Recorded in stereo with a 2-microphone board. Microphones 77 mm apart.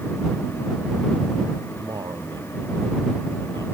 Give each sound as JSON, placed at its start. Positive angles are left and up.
{"t": 1.8, "sound": "a man speaking", "side_deg": -70}